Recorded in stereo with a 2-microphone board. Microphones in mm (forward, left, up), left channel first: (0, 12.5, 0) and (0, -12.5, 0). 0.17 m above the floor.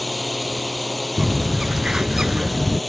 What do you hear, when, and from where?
0.0 s a drone: 5° left (ahead or behind)
1.2 s a bird: 30° right (ahead or behind)